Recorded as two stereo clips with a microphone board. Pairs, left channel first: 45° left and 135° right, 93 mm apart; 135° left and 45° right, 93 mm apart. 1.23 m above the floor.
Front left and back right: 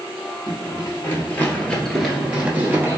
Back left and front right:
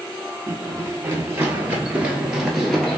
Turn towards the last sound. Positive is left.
turn(degrees=-145)